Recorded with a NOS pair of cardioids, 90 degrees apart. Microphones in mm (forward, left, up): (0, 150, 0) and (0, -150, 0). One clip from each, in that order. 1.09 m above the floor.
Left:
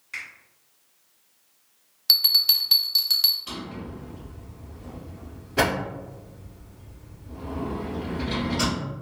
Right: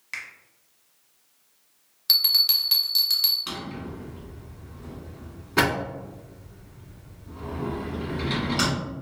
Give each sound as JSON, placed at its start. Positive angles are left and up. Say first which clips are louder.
{"t": 0.1, "sound": "a finger snap", "louder": "even", "azimuth_deg": -60, "distance_m": 1.2}
{"t": 2.1, "sound": "a bell", "louder": "left 1 dB", "azimuth_deg": 5, "distance_m": 0.6}
{"t": 3.5, "sound": "a drawer", "louder": "right 2 dB", "azimuth_deg": -65, "distance_m": 1.5}